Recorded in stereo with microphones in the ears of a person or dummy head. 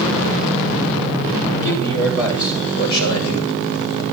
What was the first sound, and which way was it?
A man speaking, 70° left (ahead or behind).